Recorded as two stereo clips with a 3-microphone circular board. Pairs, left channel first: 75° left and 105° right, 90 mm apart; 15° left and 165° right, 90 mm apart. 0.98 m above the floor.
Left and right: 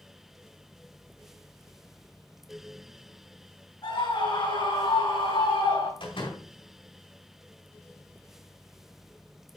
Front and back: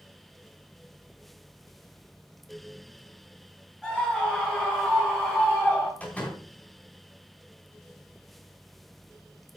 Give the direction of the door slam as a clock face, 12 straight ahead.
9 o'clock.